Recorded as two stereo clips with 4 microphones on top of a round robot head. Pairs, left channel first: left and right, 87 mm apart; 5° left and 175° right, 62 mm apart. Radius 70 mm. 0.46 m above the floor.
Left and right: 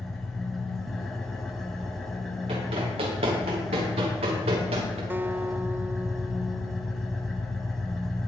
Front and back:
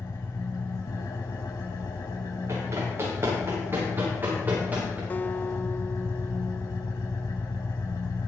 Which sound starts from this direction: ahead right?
A guitar, at 5.1 s.